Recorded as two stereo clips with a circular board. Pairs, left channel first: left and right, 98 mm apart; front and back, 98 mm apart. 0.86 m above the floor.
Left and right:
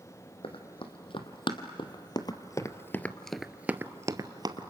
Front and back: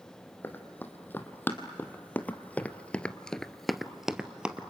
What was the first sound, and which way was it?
Running footsteps, 70° left.